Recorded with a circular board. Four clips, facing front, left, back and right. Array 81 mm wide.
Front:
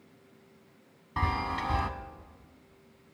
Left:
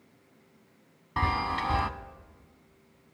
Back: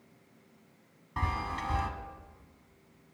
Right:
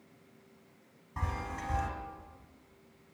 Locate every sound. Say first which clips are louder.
1.2 s a chime: left 10 dB, front 3 dB; 75° left, 0.6 m